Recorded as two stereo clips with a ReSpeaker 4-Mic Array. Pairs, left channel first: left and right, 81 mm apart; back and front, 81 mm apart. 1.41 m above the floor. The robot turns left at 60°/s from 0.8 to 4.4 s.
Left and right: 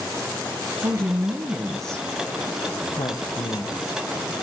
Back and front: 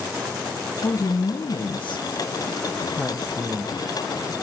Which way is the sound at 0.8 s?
125° right.